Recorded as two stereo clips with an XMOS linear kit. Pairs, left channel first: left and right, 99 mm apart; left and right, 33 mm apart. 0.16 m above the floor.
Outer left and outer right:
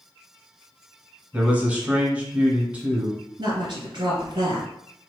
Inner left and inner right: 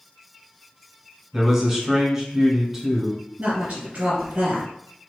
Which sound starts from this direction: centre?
A man speaking, at 1.3 s.